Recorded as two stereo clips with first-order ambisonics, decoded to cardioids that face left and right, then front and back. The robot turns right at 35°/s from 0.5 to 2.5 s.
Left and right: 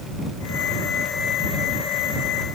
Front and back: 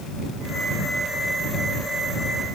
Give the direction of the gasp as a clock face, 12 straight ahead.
I don't hear a gasp.